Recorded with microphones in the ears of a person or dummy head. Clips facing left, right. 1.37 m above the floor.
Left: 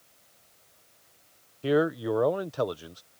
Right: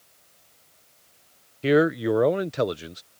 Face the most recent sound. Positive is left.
turn(degrees=-25)  # may be behind; listen again after turning